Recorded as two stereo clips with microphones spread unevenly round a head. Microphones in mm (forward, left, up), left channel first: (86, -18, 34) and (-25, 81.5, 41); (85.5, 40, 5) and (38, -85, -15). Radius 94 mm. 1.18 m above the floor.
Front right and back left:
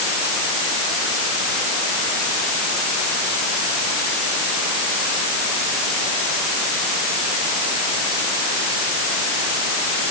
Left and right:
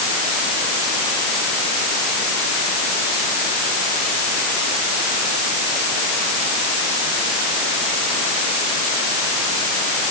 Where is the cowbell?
No cowbell in this recording.